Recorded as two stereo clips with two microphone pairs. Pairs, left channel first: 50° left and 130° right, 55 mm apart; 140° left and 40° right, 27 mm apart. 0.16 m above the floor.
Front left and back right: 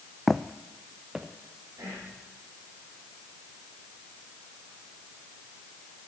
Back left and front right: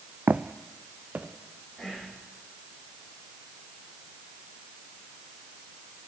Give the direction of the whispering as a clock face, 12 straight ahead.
4 o'clock.